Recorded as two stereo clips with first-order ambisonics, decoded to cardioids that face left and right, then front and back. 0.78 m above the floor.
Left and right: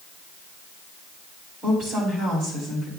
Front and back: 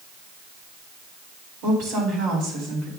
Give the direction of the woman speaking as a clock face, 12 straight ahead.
5 o'clock.